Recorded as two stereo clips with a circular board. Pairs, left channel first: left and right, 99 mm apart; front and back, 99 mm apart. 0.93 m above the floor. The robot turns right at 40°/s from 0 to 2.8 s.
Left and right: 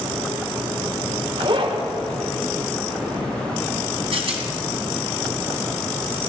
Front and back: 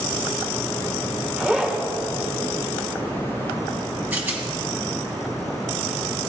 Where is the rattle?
110° right, 3 m.